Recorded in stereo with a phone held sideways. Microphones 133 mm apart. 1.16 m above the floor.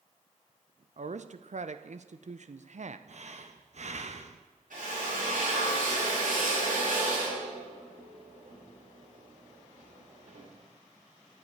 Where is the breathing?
55° right (ahead or behind), 0.7 m.